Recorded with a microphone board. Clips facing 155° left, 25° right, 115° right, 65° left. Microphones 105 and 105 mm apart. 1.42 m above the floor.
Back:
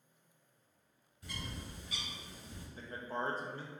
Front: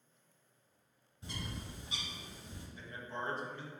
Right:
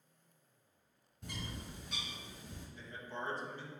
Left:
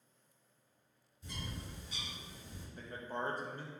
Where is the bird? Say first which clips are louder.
Front 1 dB, right 1 dB; 85° right, 0.6 m.